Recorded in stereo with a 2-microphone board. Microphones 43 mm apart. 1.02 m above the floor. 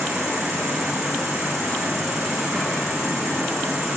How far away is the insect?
About 7 m.